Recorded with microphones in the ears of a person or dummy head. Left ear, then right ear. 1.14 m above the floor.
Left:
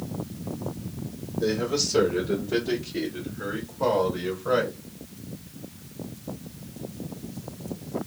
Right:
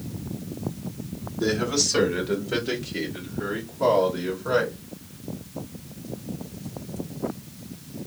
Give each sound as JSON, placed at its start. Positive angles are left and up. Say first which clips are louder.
{"t": 1.4, "sound": "a man speaking", "louder": "right 2 dB", "side_deg": -50, "distance_m": 1.3}